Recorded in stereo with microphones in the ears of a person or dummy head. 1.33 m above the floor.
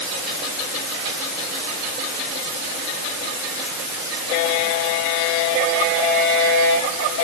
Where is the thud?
No thud in this recording.